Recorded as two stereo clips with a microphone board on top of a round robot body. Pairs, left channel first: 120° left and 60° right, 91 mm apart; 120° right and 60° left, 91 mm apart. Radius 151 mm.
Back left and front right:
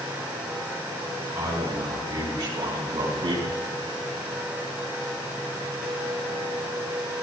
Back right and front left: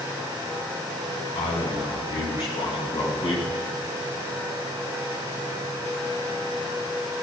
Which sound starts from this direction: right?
A man speaking, at 1.4 s.